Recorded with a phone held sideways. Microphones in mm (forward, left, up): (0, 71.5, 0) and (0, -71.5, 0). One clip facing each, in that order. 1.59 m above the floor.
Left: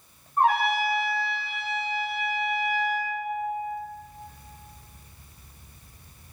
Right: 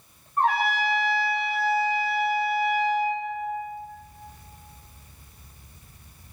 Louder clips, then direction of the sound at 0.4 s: Left 1 dB; 10° left (ahead or behind).